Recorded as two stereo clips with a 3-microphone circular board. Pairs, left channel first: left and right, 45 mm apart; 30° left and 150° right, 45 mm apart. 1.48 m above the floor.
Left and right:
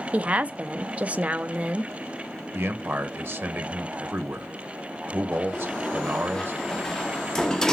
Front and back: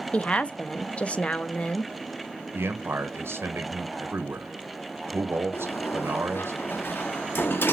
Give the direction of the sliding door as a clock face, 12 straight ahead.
12 o'clock.